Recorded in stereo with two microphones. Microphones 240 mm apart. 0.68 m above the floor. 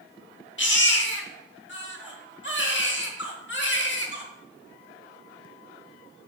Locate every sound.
0.6 s a baby crying: 50° left (ahead or behind), 1.1 m